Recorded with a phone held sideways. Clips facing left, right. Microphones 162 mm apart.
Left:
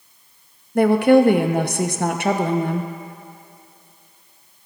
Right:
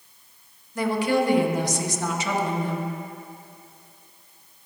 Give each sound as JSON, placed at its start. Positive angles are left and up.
{"t": 0.8, "sound": "a woman speaking", "side_deg": 60, "distance_m": 0.7}